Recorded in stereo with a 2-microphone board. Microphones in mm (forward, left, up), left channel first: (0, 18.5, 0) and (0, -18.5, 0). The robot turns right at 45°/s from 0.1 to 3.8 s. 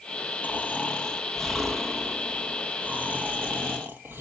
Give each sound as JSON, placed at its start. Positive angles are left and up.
{"t": 0.4, "sound": "snoring", "azimuth_deg": 125, "distance_m": 1.6}